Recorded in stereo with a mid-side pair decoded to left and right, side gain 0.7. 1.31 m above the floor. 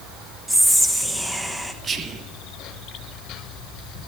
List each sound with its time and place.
0.5 s whispering: straight ahead, 0.8 m
1.8 s whispering: 25° right, 0.6 m